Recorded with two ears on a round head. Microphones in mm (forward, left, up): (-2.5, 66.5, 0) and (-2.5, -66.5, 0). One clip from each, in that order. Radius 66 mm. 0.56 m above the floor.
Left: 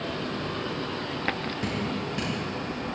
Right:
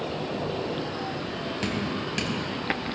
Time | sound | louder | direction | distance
1.6 | dripping | right 1 dB | 60° right (ahead or behind) | 3 m